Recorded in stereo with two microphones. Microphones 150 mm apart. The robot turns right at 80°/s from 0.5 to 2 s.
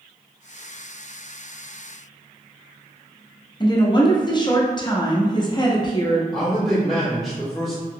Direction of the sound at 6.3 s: Centre (ahead or behind).